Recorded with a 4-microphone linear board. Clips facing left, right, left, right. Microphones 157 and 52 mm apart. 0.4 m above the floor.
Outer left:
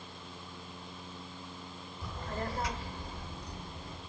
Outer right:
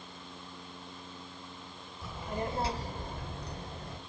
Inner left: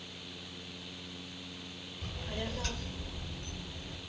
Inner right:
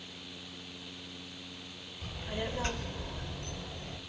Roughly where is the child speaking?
Centre.